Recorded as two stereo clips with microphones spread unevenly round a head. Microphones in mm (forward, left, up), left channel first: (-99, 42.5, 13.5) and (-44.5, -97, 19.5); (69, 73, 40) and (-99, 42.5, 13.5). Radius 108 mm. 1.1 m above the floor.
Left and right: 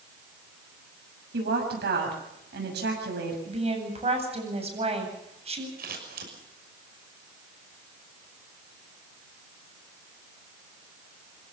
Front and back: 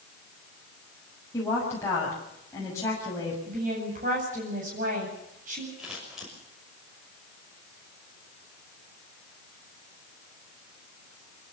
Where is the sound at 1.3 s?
65° right, 6.5 m.